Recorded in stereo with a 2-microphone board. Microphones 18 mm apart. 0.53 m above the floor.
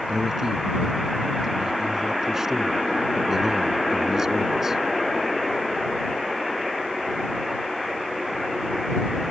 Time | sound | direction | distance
0.1 | a man speaking | 25° right (ahead or behind) | ?